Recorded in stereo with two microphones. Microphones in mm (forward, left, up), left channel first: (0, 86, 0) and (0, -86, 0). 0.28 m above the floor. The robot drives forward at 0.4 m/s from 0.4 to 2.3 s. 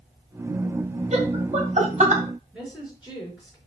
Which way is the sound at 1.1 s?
40° right (ahead or behind).